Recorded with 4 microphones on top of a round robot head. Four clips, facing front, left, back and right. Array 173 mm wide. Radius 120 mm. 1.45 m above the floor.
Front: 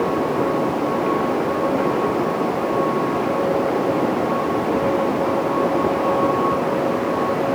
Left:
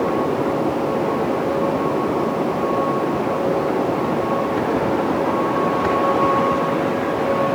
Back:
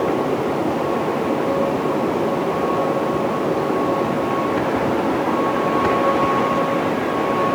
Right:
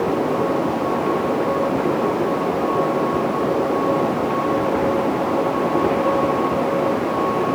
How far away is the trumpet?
I don't hear a trumpet.